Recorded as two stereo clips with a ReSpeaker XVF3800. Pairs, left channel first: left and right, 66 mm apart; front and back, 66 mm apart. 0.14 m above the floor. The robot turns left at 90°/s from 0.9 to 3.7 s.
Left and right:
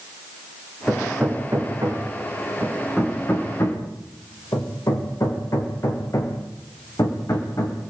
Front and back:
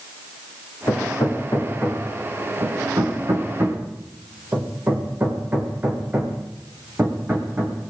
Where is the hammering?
15° left, 6.5 m; by 7.8 s 120° left, 6.5 m.